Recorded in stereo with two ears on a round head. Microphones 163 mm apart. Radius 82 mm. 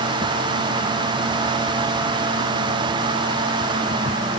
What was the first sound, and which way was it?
Only background noise.